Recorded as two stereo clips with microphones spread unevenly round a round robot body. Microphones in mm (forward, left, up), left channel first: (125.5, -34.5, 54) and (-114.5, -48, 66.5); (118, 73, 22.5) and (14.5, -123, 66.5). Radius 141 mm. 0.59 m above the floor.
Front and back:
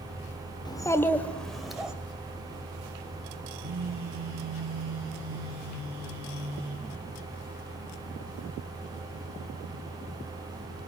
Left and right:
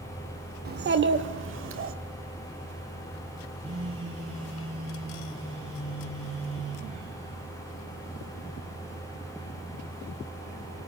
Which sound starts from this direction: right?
A child speaking, at 0.7 s.